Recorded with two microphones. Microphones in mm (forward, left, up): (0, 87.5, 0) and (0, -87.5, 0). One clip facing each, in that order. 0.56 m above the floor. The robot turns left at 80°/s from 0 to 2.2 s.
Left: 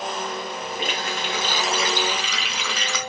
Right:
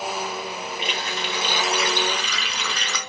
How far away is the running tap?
About 0.9 m.